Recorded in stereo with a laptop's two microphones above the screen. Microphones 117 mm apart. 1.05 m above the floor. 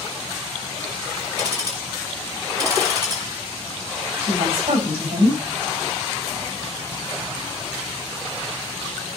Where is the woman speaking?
60° right (ahead or behind), 6 m.